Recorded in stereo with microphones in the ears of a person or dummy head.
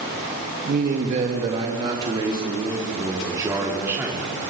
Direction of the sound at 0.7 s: 45° right (ahead or behind).